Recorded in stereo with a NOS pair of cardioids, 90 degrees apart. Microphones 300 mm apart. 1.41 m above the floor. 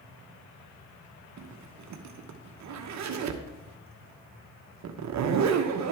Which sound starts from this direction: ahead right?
A zipper, at 1.4 s.